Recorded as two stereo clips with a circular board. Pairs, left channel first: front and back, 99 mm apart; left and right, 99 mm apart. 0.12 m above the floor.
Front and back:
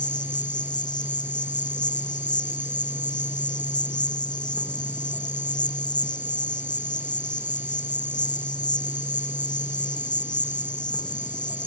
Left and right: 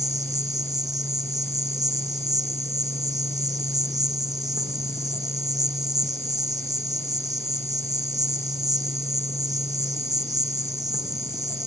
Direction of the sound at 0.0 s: 40° right.